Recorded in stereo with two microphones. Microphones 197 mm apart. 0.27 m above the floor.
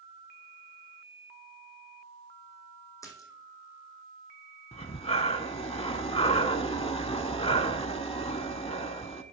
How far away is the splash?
About 1.9 m.